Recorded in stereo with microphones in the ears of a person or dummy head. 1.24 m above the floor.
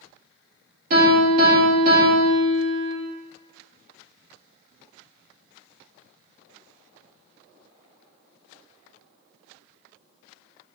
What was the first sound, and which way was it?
A piano, 55° right (ahead or behind).